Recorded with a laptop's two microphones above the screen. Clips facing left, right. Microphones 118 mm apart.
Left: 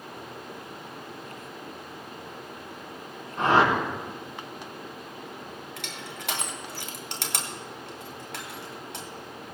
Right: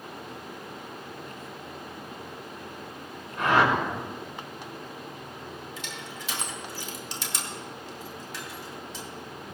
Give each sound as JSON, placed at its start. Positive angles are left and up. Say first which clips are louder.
{"t": 3.4, "sound": "a whoosh", "louder": "left 1 dB", "side_deg": 30, "distance_m": 4.0}
{"t": 5.8, "sound": "crushing", "louder": "even", "side_deg": 70, "distance_m": 2.0}